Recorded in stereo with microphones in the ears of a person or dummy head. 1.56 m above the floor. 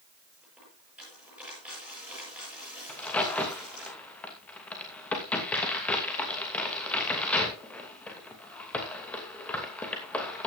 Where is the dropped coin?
5° right (ahead or behind), 8 m.